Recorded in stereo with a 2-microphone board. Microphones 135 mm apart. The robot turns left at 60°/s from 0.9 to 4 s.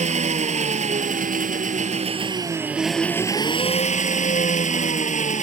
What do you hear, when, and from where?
0.0 s an engine running: 60° right; by 5.4 s 115° left